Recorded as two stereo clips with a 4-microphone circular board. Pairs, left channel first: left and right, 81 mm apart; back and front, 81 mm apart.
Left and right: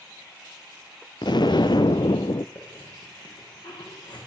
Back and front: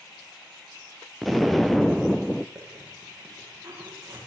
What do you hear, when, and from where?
1.2 s an explosion: 90° left, 0.8 m
2.5 s a hiss: 65° left, 8.5 m